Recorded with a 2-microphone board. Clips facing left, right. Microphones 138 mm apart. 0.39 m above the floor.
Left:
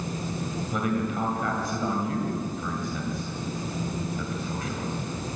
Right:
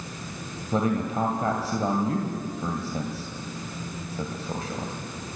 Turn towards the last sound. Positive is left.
turn(degrees=-35)  # may be behind; listen again after turning